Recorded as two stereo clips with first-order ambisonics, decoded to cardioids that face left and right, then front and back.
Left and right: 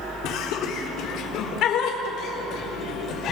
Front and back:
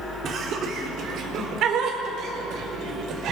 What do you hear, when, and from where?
0.2 s laughter: 125° left, 3.5 m; by 3.3 s 135° left, 5 m